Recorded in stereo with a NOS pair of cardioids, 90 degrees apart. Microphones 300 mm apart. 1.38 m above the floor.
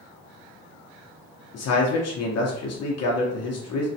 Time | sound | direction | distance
1.5 | a man speaking | 55° left | 0.9 m